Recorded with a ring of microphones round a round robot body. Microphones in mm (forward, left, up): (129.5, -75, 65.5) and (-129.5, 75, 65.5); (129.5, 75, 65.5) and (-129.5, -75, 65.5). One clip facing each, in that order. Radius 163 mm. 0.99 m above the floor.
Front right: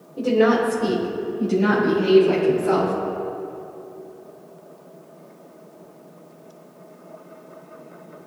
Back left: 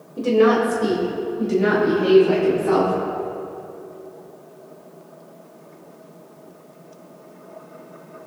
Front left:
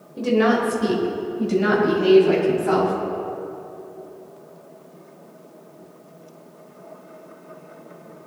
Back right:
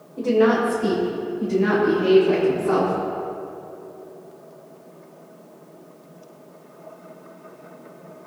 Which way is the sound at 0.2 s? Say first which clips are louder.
Back left 2 dB, back right 1 dB; 70° left.